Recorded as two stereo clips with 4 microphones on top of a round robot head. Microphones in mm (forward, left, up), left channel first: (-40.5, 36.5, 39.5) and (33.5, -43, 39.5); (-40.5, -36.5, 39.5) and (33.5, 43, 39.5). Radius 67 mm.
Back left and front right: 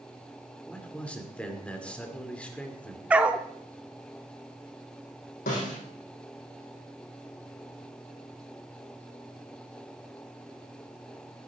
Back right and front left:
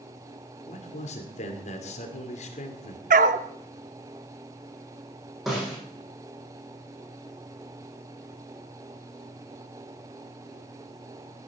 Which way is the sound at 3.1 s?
30° left.